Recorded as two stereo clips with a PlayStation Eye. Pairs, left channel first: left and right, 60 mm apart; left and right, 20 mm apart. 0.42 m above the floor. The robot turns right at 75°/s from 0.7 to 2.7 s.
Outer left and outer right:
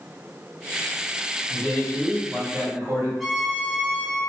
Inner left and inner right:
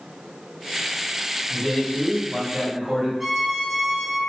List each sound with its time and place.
1.5 s a man speaking: 150° left, 2.0 m; by 3.1 s 120° right, 2.0 m
3.2 s a violin: 5° right (ahead or behind), 0.9 m